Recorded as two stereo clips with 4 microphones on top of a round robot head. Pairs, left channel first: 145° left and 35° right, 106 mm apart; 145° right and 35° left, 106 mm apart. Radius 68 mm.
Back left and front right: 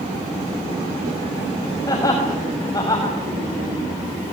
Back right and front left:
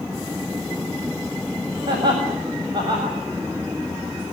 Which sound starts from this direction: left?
Laughter, at 1.9 s.